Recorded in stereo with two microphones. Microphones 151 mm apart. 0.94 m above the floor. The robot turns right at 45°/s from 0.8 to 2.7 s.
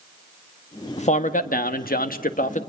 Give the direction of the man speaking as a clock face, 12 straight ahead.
10 o'clock.